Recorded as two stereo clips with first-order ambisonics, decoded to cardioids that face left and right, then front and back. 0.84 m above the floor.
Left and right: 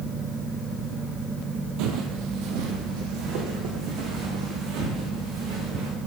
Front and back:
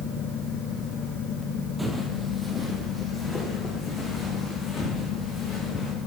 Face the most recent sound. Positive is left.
turn(degrees=-70)